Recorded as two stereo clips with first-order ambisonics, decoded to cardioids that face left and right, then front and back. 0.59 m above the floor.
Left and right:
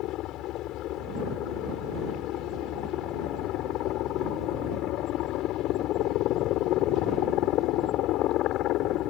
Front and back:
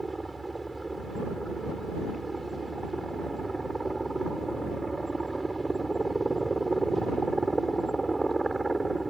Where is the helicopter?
100° left.